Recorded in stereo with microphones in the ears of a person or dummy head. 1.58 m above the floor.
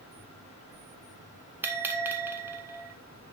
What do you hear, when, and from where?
1.6 s a bell: 10° right (ahead or behind), 1.1 m